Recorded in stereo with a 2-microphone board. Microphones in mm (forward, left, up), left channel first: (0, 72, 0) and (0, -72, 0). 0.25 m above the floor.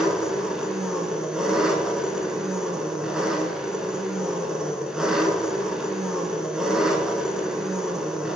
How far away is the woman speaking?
No woman speaking in this recording.